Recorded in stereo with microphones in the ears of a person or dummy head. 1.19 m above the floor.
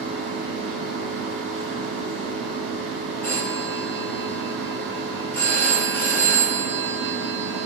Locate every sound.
0.0 s a machine running: 5° left (ahead or behind), 1.3 m
3.2 s a phone ringing: 15° left (ahead or behind), 0.9 m